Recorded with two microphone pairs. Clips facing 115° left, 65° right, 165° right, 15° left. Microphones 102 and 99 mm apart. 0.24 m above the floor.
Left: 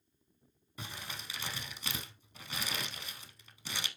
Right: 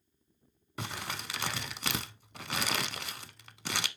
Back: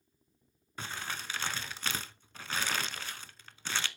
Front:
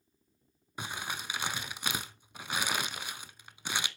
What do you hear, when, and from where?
0.8 s crumpling: 60° right, 0.5 m